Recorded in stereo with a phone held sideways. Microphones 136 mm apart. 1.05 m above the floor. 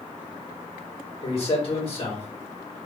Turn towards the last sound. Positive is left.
turn(degrees=45)  # may be behind; listen again after turning